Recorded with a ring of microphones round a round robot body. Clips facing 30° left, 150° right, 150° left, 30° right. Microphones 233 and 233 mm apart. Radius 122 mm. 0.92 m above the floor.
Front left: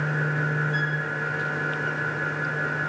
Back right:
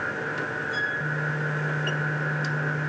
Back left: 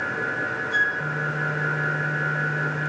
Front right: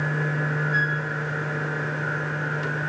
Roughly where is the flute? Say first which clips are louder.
Front left 3 dB, front right 3 dB; behind.